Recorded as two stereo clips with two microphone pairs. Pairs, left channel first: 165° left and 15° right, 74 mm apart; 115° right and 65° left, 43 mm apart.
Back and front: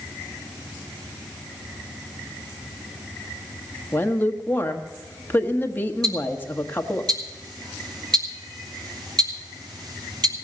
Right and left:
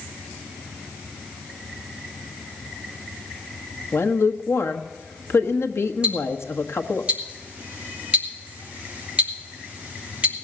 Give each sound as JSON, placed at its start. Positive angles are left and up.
{"t": 3.9, "sound": "a woman speaking", "azimuth_deg": -130, "distance_m": 1.3}
{"t": 6.0, "sound": "ticking", "azimuth_deg": 0, "distance_m": 2.5}